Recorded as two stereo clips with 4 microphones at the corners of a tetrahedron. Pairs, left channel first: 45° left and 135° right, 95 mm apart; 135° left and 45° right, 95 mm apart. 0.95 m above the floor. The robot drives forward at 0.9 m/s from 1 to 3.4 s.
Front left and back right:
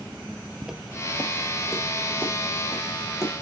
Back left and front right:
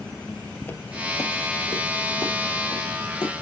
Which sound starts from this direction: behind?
Footsteps, at 0.6 s.